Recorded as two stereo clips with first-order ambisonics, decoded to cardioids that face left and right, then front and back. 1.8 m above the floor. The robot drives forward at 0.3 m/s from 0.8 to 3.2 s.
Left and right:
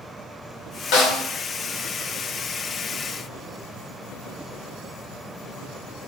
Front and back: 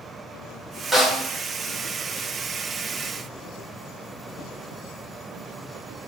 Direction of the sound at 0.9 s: 85° left.